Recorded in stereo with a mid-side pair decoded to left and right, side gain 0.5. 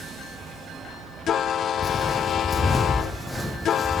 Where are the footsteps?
35° left, 3 m; by 4.0 s 10° left, 3.5 m.